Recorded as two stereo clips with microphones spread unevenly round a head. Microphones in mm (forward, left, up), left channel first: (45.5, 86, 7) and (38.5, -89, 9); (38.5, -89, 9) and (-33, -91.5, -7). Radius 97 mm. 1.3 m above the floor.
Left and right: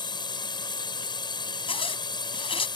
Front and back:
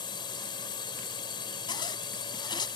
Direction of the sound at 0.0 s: 25° left.